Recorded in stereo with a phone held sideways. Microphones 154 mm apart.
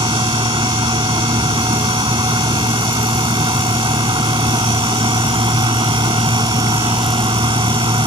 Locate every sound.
0.0 s a fan: 30° right (ahead or behind)